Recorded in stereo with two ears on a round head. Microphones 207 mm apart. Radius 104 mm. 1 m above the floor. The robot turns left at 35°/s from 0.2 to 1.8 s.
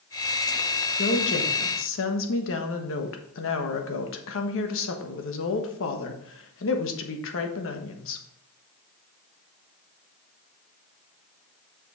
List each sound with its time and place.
1.0 s a woman speaking: 45° left (ahead or behind), 1.3 m; by 8.2 s 60° left (ahead or behind), 1.3 m